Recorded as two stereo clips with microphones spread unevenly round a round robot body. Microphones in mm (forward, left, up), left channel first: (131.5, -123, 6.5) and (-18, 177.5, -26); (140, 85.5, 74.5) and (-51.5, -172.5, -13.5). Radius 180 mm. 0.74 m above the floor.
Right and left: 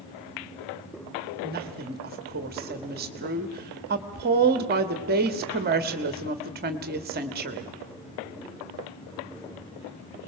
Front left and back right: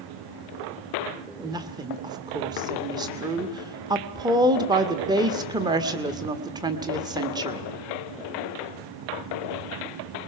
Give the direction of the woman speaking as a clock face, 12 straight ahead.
6 o'clock.